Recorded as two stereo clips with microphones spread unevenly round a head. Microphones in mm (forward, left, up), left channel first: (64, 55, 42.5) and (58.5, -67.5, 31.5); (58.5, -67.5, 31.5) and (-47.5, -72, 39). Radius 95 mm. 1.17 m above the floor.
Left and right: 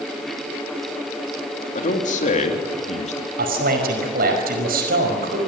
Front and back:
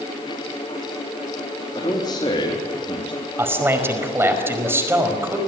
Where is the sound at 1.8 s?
65° left, 3 m; by 3.3 s 55° left, 2.5 m.